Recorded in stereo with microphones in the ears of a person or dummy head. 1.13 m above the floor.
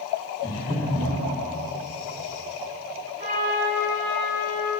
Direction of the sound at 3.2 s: 35° right (ahead or behind).